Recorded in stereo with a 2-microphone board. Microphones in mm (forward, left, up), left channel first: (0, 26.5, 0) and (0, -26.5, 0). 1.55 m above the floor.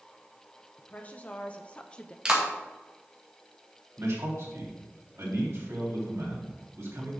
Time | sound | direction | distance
0.8 | a woman speaking | 30° left (ahead or behind) | 1.4 m
2.2 | a clap | 20° right (ahead or behind) | 2 m
4.0 | a man speaking | 65° right (ahead or behind) | 3.5 m